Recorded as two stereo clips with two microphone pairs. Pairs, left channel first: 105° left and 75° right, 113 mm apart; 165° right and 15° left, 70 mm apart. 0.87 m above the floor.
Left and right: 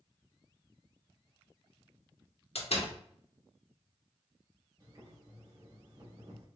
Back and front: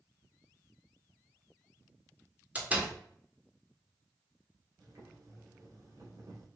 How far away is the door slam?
About 1.3 m.